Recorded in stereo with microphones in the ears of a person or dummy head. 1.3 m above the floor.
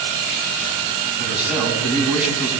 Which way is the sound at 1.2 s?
10° right (ahead or behind).